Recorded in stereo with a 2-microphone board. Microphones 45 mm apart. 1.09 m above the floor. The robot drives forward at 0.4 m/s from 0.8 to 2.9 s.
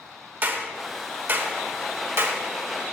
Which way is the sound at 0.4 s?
40° right (ahead or behind).